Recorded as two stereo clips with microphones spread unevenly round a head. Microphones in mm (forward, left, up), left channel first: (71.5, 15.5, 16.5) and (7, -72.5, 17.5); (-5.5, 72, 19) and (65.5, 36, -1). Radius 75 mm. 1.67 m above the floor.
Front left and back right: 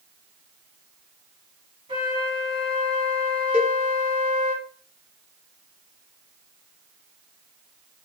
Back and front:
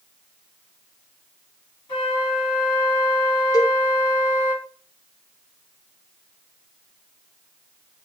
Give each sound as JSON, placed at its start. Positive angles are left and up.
{"t": 1.9, "sound": "a flute", "azimuth_deg": 175, "distance_m": 2.5}
{"t": 3.5, "sound": "a cowbell", "azimuth_deg": 155, "distance_m": 0.8}